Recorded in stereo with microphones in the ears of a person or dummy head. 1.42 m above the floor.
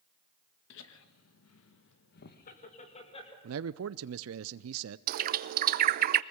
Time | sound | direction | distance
0.7 | laughter | 65° left (ahead or behind) | 2 m
3.4 | a man speaking | 75° right (ahead or behind) | 0.6 m
5.1 | a bird | 50° right (ahead or behind) | 0.6 m